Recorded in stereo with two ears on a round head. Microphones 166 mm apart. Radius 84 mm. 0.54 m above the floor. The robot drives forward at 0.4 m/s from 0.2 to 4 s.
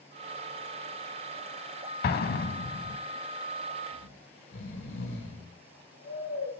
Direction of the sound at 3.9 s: 65° left (ahead or behind).